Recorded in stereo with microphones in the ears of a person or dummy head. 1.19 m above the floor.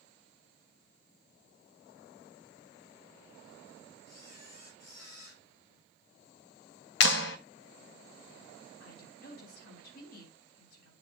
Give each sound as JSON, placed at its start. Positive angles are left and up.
{"t": 4.1, "sound": "a camera shutter", "side_deg": 65, "distance_m": 6.5}
{"t": 7.0, "sound": "a clap", "side_deg": 70, "distance_m": 0.9}
{"t": 8.8, "sound": "a woman speaking", "side_deg": 60, "distance_m": 7.5}